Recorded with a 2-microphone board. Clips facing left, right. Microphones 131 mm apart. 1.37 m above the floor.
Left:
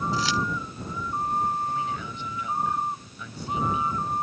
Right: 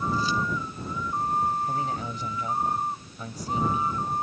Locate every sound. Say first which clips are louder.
0.1 s keys jangling: left 1 dB; 90° left
1.7 s a man speaking: right 1 dB; 40° right (ahead or behind)